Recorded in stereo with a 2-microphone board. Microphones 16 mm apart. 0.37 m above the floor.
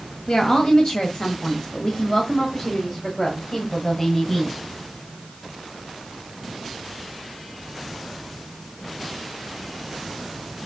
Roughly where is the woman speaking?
Left.